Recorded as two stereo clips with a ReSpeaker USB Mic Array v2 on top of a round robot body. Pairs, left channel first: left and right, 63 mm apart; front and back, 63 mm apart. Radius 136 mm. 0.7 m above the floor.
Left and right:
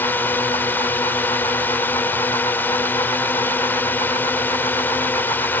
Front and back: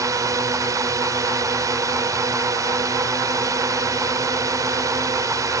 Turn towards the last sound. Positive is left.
turn(degrees=150)